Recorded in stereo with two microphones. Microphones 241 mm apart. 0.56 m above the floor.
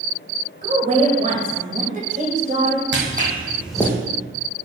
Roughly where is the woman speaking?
Right.